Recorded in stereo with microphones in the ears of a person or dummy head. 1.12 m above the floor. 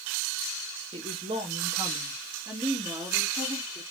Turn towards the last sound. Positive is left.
turn(degrees=-15)  # may be behind; listen again after turning